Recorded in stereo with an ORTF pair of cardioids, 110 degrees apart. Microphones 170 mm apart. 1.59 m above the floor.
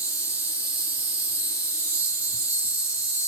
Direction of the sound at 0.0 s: 10° right.